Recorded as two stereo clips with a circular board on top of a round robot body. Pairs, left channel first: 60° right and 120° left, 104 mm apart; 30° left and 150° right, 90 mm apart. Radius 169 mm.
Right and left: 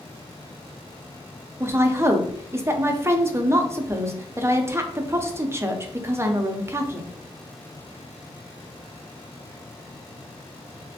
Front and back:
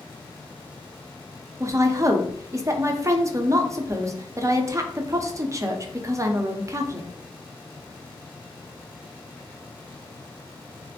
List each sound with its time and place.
1.6 s a woman speaking: 175° left, 0.6 m